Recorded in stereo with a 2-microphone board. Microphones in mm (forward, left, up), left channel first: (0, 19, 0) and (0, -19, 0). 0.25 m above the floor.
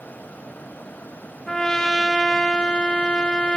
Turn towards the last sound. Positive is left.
turn(degrees=10)  # may be behind; listen again after turning